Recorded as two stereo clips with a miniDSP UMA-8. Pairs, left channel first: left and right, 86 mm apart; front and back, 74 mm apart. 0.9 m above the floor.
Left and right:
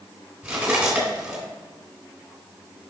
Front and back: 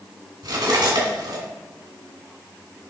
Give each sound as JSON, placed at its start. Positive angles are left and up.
{"t": 0.4, "sound": "cutlery clinking", "azimuth_deg": -170, "distance_m": 2.5}